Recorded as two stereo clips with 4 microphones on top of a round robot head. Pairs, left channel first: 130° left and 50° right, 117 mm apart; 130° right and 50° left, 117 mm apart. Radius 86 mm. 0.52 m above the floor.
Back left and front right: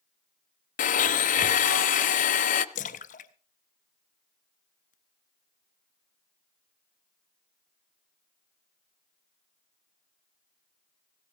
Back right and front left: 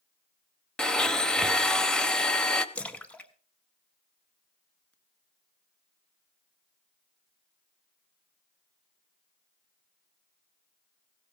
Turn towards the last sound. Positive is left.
turn(degrees=150)